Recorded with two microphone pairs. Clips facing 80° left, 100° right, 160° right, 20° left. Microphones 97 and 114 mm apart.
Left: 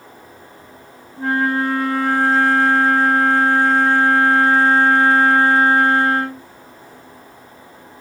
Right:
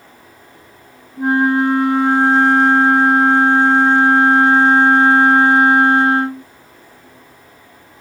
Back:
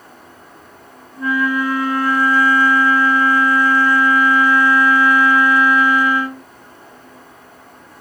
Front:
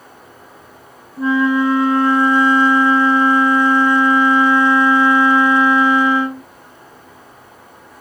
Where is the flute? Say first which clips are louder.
Right 4 dB, front 4 dB; 40° right, 0.9 m.